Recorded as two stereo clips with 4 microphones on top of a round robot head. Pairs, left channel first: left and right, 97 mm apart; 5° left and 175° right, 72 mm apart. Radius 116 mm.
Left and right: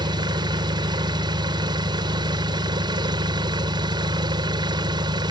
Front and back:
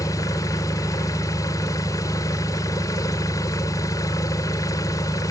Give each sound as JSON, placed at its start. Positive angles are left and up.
{"t": 0.0, "sound": "an engine running", "azimuth_deg": -45}